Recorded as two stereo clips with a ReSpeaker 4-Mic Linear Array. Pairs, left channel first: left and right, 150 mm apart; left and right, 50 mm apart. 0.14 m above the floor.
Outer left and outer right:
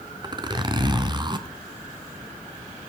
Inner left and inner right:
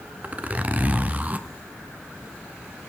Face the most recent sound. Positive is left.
turn(degrees=-30)  # may be behind; listen again after turning